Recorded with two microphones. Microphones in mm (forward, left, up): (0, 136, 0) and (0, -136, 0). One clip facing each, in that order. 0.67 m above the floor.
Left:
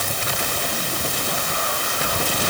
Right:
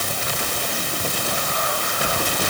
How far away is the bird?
No bird in this recording.